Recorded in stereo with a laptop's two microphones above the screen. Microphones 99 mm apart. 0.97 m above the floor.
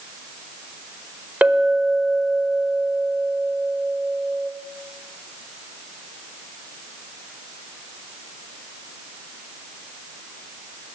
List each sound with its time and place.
1.4 s a clink: 15° right (ahead or behind), 1.8 m